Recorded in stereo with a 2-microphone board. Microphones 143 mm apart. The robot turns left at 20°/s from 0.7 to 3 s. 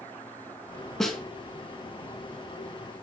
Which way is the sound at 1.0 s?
5° left (ahead or behind).